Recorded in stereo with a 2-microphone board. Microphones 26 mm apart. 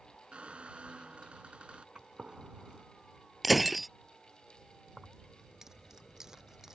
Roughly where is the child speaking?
No child speaking in this recording.